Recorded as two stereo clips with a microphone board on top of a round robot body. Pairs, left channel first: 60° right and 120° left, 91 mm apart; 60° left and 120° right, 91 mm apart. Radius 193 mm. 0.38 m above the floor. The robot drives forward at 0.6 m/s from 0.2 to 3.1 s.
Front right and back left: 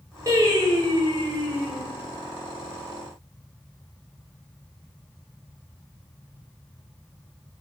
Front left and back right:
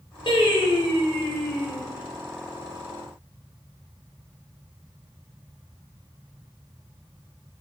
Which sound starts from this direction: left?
Singing, at 0.3 s.